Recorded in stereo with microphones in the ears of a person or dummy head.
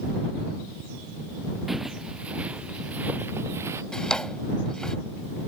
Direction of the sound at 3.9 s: 5° left (ahead or behind).